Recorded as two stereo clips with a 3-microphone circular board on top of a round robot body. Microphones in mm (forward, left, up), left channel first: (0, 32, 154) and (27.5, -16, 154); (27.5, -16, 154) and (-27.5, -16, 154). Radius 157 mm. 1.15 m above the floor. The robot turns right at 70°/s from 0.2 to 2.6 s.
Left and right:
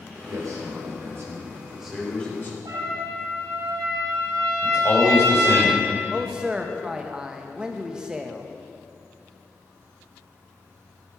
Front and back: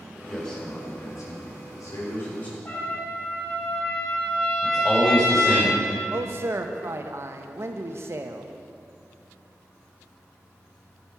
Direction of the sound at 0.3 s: 90° right.